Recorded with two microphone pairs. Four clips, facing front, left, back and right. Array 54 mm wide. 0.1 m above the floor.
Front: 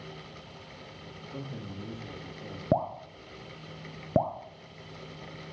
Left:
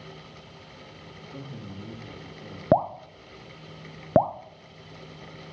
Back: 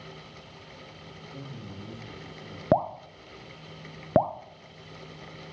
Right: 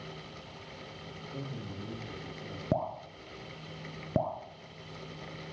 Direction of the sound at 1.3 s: 10° left.